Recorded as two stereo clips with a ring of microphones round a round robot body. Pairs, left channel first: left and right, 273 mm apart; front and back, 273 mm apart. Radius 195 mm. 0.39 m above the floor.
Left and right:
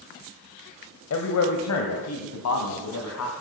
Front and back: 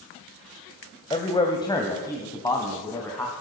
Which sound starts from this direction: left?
A man speaking, at 1.1 s.